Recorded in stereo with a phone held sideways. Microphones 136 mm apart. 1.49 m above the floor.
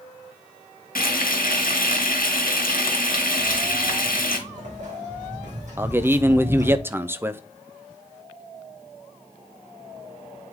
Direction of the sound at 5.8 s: 15° right (ahead or behind).